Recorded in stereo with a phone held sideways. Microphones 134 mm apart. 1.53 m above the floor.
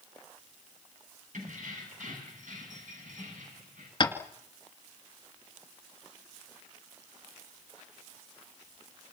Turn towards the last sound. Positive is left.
turn(degrees=35)  # may be behind; listen again after turning